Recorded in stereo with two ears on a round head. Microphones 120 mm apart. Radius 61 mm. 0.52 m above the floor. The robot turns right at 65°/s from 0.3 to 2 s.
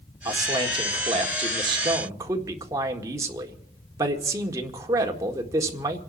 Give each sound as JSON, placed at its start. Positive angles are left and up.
{"t": 0.2, "sound": "a man speaking", "azimuth_deg": -145, "distance_m": 1.7}